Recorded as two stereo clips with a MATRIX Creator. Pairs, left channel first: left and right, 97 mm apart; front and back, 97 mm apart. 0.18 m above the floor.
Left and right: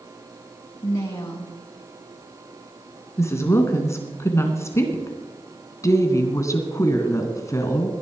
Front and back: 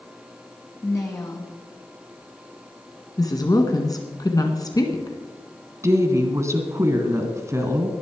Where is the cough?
I don't hear a cough.